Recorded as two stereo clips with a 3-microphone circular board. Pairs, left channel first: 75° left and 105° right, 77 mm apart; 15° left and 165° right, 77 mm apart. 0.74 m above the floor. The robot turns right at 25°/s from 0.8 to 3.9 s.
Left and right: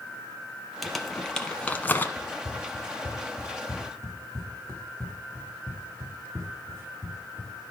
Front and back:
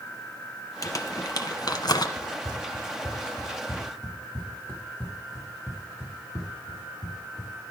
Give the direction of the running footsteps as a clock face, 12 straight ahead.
4 o'clock.